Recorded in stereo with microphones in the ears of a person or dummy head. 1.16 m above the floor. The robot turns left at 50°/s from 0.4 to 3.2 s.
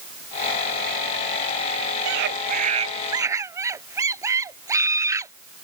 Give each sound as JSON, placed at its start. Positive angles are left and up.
{"t": 2.0, "sound": "a scream", "azimuth_deg": -105}